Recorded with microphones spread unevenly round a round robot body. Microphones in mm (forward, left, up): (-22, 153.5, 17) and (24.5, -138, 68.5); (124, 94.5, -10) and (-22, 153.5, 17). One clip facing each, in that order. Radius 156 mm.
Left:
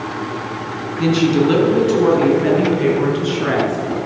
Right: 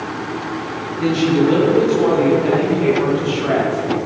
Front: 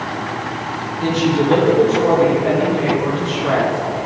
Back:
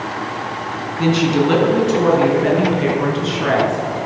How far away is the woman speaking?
About 4 m.